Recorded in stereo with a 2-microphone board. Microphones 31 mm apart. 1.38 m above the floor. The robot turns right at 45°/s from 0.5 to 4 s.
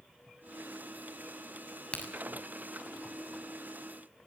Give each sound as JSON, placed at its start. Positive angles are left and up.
{"t": 1.9, "sound": "a crack", "side_deg": 30, "distance_m": 6.5}